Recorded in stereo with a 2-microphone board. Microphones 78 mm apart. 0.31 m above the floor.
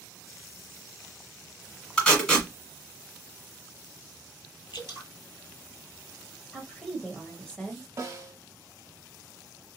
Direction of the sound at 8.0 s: 40° right (ahead or behind).